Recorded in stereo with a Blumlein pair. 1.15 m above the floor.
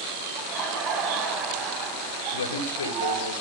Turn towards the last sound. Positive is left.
turn(degrees=70)